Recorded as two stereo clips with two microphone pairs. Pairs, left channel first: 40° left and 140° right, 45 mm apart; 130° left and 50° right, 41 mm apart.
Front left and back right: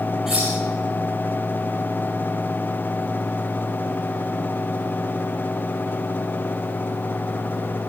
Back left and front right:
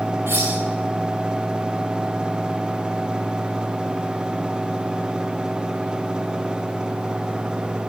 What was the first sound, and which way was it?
Cutlery clinking, 65° right.